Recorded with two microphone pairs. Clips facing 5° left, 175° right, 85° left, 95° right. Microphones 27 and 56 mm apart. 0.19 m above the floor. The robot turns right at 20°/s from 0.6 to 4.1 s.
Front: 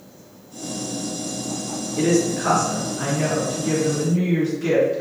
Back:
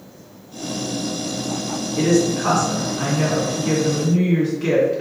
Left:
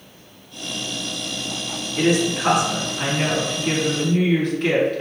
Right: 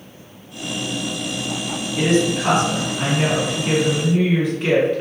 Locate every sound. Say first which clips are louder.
2.0 s a woman speaking: back 2 dB, right 1 dB; 150° left, 2.0 m; by 5.0 s 170° right, 2.0 m